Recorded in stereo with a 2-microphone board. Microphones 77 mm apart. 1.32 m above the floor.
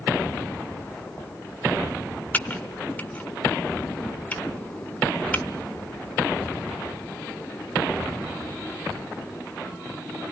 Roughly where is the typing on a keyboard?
Left.